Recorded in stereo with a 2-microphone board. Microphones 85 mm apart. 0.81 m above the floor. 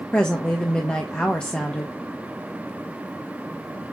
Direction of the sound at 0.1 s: 15° left (ahead or behind).